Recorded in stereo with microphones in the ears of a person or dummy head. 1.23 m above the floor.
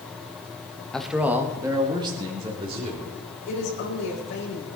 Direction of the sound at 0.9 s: 5° left (ahead or behind).